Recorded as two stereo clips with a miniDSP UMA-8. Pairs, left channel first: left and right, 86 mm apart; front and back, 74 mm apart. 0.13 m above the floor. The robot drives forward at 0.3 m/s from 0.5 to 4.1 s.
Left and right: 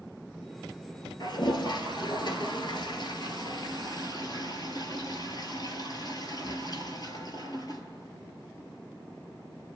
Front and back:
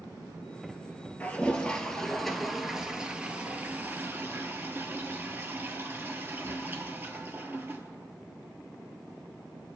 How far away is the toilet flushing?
About 1.0 m.